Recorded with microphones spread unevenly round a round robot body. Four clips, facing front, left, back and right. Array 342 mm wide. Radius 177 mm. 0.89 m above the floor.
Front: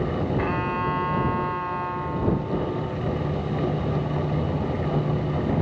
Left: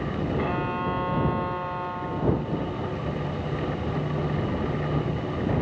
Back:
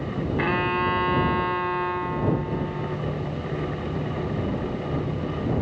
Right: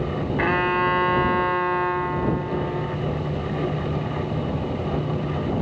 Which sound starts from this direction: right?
A violin, at 0.4 s.